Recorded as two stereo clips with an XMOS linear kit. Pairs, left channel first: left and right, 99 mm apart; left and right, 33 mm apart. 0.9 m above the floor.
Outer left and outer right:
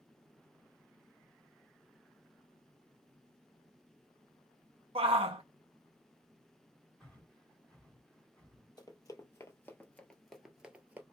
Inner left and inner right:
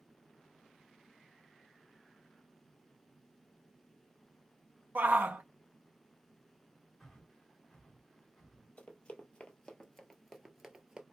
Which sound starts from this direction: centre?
Breathing, at 7.0 s.